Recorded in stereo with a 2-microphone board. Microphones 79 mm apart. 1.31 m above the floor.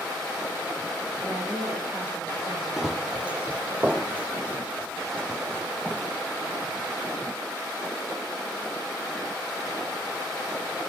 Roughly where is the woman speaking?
Right.